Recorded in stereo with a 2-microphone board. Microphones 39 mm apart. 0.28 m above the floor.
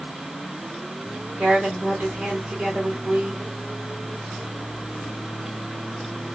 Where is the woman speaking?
40° right (ahead or behind), 2.5 m.